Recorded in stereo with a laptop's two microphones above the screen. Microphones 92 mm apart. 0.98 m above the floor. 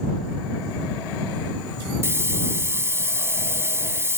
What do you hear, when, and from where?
2.0 s a hiss: 30° right (ahead or behind)